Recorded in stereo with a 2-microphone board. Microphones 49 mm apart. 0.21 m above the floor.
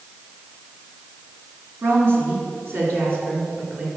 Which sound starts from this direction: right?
A woman speaking, at 1.8 s.